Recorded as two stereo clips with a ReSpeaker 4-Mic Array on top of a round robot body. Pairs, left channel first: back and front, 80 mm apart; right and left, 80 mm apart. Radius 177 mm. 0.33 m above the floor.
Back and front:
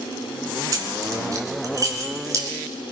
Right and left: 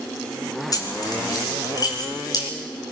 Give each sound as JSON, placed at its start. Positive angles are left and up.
{"t": 0.7, "sound": "keys jangling", "azimuth_deg": -45, "distance_m": 4.0}